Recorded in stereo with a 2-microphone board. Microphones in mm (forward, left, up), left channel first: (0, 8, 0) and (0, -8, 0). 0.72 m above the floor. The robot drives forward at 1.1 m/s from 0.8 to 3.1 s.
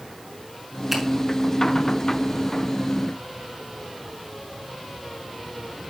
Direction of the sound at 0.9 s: 20° right (ahead or behind).